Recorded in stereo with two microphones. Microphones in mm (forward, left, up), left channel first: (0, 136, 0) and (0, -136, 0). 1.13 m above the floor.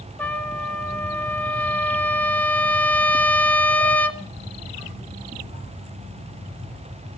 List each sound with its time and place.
0.2 s a trumpet: 5° left (ahead or behind), 1.1 m